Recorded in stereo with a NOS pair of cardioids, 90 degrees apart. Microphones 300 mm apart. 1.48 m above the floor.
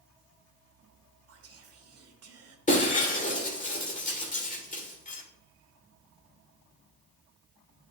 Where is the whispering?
50° right, 1.6 m.